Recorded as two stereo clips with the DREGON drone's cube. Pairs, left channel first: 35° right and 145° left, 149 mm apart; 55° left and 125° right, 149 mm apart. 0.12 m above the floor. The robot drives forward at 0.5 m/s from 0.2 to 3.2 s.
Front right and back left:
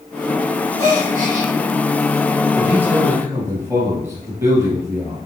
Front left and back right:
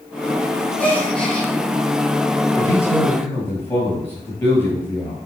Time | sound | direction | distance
0.8 | a gasp | 135° left | 2.0 m
2.5 | a man speaking | 85° left | 1.7 m